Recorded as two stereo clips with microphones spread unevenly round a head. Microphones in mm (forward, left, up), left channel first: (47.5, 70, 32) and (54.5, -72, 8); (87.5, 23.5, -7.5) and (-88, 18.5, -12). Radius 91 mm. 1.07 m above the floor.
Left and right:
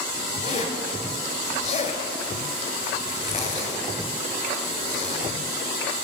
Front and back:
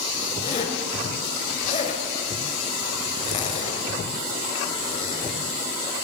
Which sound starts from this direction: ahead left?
A zipper, at 0.4 s.